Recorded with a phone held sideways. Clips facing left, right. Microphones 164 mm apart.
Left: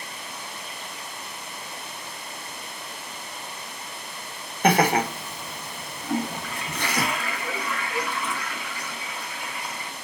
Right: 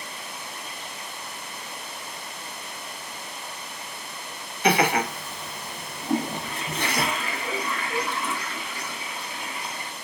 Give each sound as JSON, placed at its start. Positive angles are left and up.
{"t": 4.6, "sound": "laughter", "side_deg": 50, "distance_m": 0.8}
{"t": 6.0, "sound": "a toilet flushing", "side_deg": -20, "distance_m": 0.7}